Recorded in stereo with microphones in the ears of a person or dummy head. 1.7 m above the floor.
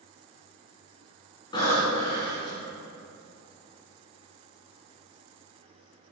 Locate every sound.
1.5 s breathing: 35° left (ahead or behind), 3 m